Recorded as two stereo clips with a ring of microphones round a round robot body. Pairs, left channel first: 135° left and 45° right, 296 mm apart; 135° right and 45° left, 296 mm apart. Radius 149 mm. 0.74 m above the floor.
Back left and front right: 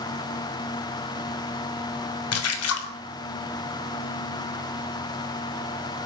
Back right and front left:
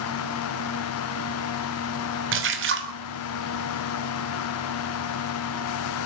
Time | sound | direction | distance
2.3 | a splash | 95° left | 3 m